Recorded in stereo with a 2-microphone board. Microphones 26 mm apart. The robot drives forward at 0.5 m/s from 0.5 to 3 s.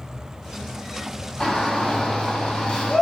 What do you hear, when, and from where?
1.4 s a shout: 20° left (ahead or behind), 1.2 m; by 3.0 s 15° left (ahead or behind), 1.2 m